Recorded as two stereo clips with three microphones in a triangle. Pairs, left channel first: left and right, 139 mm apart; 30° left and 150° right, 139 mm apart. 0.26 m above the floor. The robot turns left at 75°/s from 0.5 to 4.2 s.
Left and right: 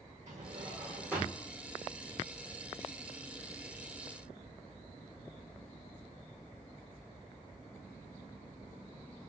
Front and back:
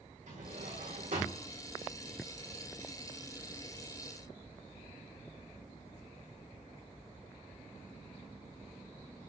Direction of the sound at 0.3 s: 120° right.